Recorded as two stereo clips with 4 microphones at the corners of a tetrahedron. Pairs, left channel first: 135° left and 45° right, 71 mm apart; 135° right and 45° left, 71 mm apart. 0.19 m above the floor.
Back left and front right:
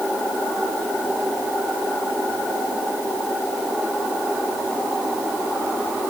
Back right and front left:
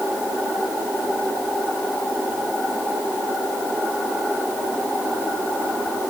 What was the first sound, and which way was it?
Only background noise.